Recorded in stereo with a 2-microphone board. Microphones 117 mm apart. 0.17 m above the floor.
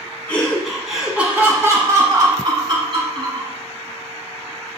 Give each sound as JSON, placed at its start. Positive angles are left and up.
{"t": 0.3, "sound": "laughter", "side_deg": 10, "distance_m": 1.3}